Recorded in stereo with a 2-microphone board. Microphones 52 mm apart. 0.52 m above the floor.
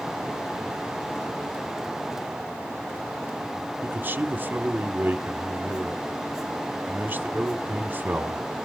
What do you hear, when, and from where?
3.8 s a man speaking: 40° right (ahead or behind), 1.0 m